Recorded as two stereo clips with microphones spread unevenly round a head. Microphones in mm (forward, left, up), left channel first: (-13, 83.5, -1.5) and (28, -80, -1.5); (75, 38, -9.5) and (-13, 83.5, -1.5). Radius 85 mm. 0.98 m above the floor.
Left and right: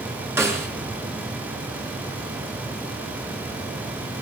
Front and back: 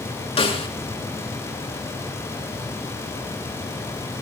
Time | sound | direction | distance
0.4 | a snare drum | straight ahead | 4 m